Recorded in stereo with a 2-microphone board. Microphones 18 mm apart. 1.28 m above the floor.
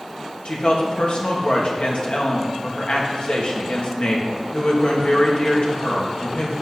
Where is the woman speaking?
60° left (ahead or behind), 2 m.